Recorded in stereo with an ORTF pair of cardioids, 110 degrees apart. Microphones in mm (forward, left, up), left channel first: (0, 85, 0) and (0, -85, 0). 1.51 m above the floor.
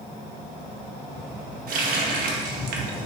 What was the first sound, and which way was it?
A running tap, 65° right.